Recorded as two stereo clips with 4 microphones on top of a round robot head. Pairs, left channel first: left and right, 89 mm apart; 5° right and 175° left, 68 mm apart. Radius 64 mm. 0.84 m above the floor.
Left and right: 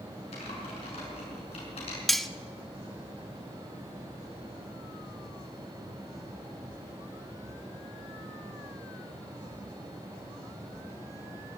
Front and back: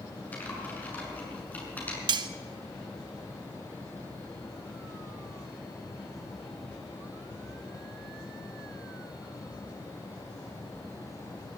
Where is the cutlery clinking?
Straight behind, 0.8 m.